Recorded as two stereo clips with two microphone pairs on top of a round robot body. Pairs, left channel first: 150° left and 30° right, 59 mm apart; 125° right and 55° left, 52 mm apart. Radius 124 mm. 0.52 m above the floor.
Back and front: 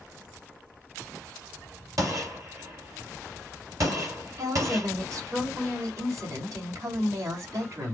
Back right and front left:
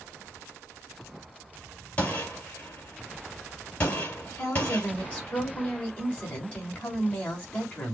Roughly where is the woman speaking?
Ahead right.